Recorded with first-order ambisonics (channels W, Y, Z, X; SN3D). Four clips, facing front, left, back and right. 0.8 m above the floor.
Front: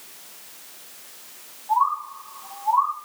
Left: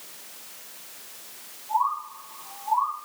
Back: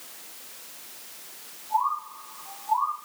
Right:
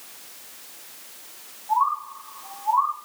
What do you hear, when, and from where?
1.7 s a bird: 30° right, 4.5 m